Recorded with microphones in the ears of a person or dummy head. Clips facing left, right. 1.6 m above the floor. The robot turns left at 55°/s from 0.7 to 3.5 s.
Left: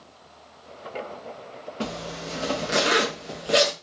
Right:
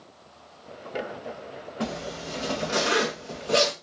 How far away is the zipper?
About 0.5 m.